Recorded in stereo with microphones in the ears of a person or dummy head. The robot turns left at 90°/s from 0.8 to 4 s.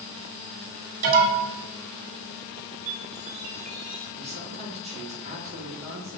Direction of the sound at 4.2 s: 30° right (ahead or behind).